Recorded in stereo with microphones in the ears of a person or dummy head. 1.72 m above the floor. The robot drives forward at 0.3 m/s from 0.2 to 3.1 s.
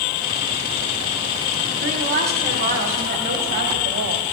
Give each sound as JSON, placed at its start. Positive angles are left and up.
{"t": 1.8, "sound": "a woman speaking", "side_deg": -50, "distance_m": 1.3}